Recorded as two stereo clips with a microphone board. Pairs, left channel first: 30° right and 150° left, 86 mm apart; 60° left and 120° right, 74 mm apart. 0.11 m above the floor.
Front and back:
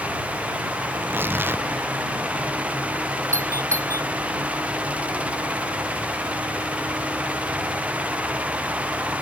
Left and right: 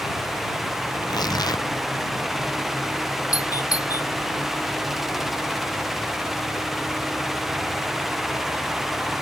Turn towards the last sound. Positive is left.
turn(degrees=95)